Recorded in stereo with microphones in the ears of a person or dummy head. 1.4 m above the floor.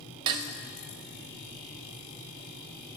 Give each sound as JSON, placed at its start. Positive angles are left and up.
{"t": 0.3, "sound": "dishes clattering", "side_deg": -30, "distance_m": 0.6}